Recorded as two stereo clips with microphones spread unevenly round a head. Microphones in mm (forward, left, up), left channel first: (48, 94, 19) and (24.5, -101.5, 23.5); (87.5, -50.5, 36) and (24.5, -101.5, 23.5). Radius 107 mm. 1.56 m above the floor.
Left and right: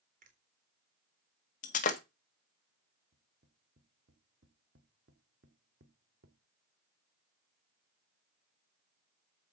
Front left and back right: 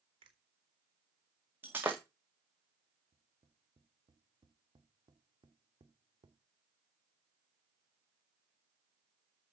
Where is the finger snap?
150° right, 3.5 m.